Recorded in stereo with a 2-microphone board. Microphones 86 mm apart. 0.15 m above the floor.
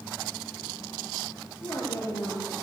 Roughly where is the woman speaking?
Left.